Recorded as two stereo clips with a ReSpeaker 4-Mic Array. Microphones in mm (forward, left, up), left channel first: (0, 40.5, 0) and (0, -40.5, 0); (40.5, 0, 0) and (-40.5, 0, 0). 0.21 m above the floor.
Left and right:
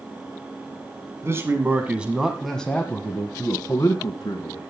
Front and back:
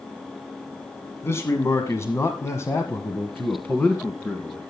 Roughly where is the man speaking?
Ahead right.